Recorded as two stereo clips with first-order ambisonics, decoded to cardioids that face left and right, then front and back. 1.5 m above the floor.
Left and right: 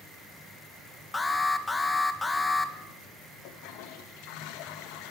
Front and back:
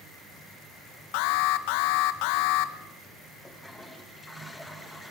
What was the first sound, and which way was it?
An alarm, 10° left.